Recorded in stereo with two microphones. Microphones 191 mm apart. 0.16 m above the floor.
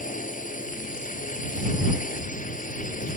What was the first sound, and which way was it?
A drone, 45° left (ahead or behind).